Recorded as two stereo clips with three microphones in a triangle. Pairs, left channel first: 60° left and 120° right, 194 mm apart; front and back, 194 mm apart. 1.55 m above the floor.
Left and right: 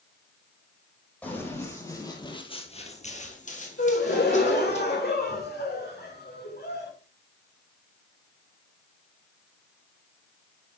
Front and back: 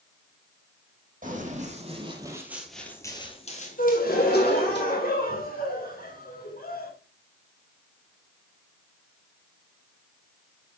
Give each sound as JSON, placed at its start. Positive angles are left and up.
{"t": 1.2, "sound": "running footsteps", "azimuth_deg": 140, "distance_m": 3.0}
{"t": 3.8, "sound": "a gasp", "azimuth_deg": 35, "distance_m": 2.0}